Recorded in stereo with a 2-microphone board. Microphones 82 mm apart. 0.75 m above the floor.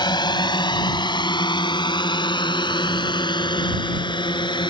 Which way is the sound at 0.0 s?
65° left (ahead or behind).